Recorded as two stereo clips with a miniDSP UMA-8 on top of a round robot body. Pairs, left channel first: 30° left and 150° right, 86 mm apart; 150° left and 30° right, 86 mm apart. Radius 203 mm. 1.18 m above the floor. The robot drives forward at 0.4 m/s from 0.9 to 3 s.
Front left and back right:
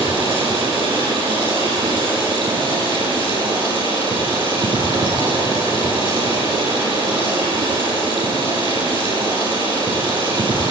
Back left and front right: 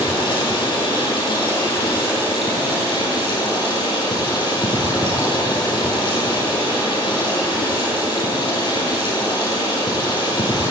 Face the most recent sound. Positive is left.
turn(degrees=-175)